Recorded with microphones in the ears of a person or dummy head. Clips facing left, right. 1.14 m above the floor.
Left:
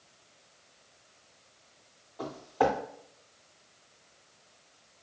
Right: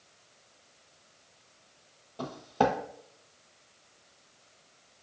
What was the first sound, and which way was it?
Footsteps, 40° right (ahead or behind).